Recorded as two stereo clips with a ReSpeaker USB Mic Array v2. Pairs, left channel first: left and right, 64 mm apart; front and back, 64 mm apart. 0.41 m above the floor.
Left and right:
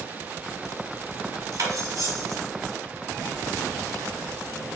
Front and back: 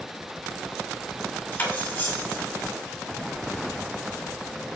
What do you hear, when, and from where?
1.5 s cutlery clinking: 60° right, 1.4 m